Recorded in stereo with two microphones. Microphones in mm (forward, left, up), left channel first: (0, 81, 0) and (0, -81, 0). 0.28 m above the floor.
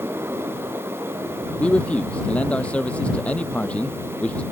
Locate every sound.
1.6 s a man speaking: 5° left (ahead or behind)